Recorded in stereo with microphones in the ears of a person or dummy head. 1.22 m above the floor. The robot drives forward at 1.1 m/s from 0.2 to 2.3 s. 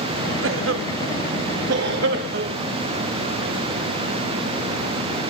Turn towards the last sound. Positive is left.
turn(degrees=-55)  # may be behind; listen again after turning